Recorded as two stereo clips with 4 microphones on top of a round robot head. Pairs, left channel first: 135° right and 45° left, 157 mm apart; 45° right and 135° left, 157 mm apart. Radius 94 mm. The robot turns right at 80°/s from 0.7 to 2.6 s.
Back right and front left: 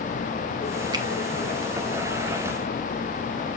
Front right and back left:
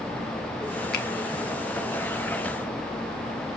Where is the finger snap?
20° right, 1.4 m; by 1.1 s 15° right, 1.4 m.